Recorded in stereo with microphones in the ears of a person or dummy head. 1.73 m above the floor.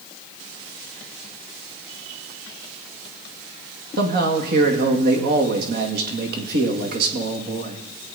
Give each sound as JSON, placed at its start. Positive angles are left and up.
{"t": 4.0, "sound": "a man speaking", "side_deg": -60, "distance_m": 2.0}